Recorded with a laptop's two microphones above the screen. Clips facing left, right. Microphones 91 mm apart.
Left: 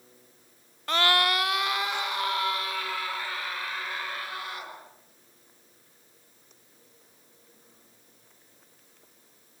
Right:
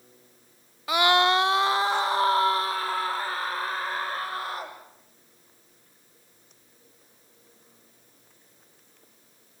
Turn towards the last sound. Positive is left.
turn(degrees=-40)  # may be behind; listen again after turning